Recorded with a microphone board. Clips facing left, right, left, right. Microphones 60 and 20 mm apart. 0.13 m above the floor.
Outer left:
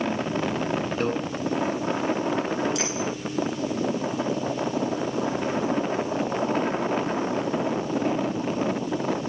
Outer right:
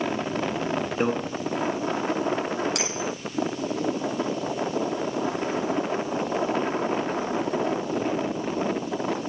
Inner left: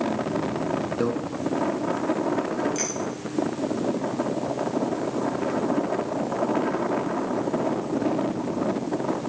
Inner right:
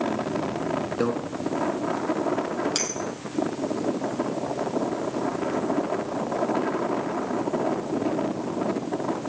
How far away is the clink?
About 2.5 m.